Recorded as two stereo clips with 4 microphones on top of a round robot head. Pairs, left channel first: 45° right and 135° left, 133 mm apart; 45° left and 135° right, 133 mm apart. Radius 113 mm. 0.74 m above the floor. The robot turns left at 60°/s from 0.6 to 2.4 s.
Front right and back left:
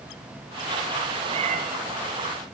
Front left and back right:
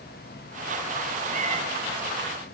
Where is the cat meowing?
170° right, 3 m; by 1.6 s 170° left, 3 m.